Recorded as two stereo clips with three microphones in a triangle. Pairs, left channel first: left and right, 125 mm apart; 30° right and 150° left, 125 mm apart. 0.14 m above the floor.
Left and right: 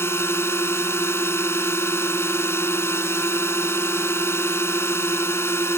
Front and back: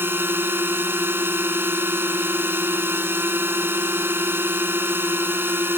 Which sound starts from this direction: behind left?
A drone, at 0.0 s.